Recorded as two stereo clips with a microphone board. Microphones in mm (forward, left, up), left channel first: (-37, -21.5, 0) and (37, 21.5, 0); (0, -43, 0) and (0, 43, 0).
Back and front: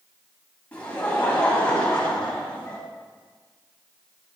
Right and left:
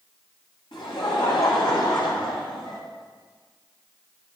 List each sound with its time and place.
0.7 s laughter: 75° right, 2 m